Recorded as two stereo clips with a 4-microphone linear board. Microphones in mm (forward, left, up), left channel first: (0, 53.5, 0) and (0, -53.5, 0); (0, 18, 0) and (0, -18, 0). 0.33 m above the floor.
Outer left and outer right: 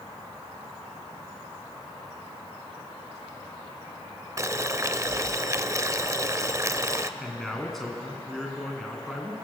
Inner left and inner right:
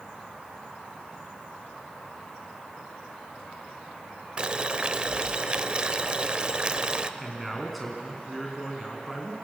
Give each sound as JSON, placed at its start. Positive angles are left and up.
{"t": 4.4, "sound": "boiling", "side_deg": -30, "distance_m": 0.6}
{"t": 7.2, "sound": "a man speaking", "side_deg": 0, "distance_m": 2.5}